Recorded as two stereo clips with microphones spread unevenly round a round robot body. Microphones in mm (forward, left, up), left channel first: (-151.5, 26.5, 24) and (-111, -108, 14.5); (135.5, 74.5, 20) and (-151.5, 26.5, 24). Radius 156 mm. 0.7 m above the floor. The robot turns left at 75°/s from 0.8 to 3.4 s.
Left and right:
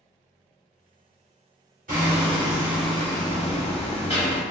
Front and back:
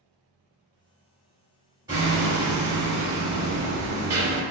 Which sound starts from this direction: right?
Hammering, at 1.9 s.